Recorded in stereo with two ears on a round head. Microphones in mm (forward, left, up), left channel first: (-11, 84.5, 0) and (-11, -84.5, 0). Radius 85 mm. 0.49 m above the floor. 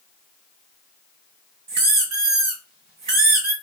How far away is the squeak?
About 1.7 m.